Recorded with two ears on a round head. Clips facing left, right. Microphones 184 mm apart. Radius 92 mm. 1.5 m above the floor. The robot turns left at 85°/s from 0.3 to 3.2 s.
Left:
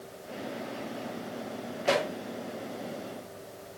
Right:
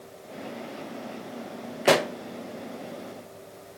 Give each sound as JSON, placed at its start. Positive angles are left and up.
{"t": 1.9, "sound": "a pop", "side_deg": -70, "distance_m": 0.7}